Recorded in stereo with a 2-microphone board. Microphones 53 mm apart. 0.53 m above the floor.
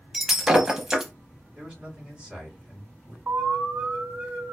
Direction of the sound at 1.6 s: 15° right (ahead or behind).